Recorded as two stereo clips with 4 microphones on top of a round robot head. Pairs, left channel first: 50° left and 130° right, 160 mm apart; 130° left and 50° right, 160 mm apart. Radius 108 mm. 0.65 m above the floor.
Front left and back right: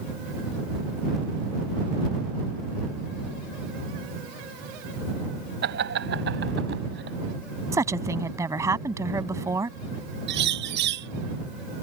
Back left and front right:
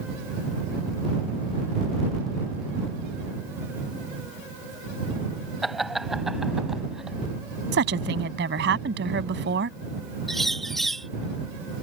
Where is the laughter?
140° right; by 7.2 s 135° right.